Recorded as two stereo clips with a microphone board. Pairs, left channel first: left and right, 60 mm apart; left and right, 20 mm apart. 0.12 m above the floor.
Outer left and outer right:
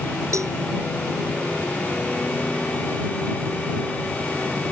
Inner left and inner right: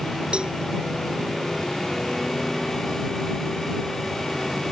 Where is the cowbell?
65° right (ahead or behind).